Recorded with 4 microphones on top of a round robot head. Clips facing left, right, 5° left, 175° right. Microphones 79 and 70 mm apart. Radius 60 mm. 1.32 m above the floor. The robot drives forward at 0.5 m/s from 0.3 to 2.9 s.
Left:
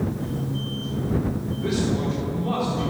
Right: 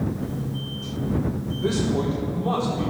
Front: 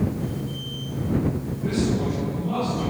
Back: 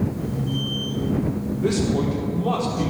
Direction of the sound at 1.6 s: 155° right.